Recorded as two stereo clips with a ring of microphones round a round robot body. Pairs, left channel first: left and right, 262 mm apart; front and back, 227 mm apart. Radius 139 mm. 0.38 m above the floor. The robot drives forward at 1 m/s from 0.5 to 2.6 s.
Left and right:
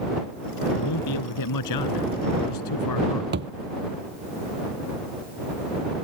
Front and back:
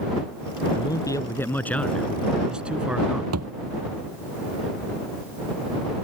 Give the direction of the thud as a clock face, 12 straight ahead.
5 o'clock.